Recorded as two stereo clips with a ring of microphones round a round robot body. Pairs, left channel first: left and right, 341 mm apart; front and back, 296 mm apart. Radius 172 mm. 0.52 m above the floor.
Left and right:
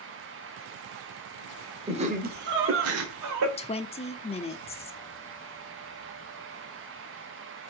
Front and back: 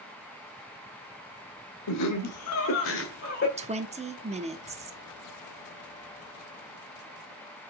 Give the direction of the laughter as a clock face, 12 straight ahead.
1 o'clock.